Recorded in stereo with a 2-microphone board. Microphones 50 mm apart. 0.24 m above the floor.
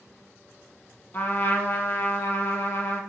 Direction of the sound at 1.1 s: 50° left (ahead or behind).